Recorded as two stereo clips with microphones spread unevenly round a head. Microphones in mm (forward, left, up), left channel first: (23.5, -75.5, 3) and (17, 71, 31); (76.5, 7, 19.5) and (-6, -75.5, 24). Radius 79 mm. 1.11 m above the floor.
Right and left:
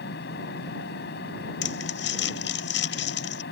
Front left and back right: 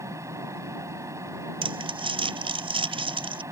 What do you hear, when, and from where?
0.0 s a fan: 70° right
1.6 s crumpling: 95° right